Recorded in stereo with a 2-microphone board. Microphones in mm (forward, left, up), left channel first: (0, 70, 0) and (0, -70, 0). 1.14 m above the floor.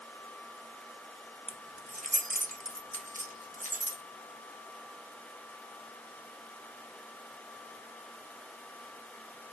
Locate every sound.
1.5 s keys jangling: 50° right (ahead or behind), 0.8 m; by 4.0 s 65° right (ahead or behind), 1.7 m